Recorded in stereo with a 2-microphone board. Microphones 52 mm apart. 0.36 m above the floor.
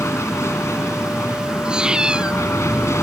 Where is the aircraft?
60° left (ahead or behind).